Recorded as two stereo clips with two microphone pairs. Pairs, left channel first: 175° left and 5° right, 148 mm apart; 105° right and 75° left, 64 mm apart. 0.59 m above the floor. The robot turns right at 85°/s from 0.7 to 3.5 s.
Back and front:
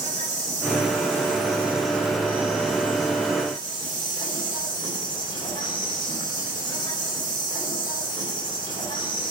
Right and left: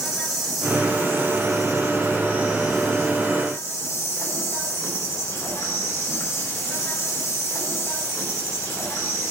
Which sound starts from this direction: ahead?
An insect, at 0.0 s.